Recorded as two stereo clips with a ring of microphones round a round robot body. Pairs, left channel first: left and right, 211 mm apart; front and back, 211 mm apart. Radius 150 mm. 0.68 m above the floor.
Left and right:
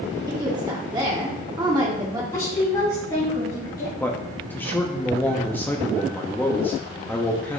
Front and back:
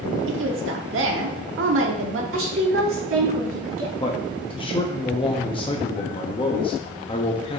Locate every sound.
0.3 s a woman speaking: 165° right, 1.3 m
2.3 s a woman speaking: 170° left, 4.5 m
4.0 s a man speaking: 20° left, 0.9 m